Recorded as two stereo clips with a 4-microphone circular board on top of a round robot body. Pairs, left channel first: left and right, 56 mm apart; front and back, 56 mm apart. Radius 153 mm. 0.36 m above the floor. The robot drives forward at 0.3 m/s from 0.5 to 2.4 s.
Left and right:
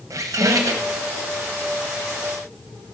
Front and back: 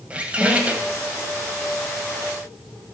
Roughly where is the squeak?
Behind right.